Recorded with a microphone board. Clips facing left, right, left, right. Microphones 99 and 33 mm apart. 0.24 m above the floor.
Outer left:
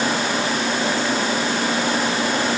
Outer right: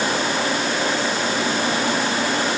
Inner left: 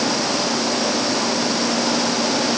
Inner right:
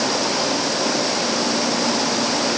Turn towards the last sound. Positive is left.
No sound to turn to.